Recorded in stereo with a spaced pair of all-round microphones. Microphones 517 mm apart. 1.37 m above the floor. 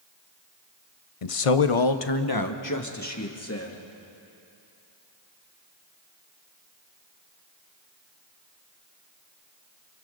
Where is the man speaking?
80° left, 0.7 m; by 3.8 s 25° left (ahead or behind), 2.5 m.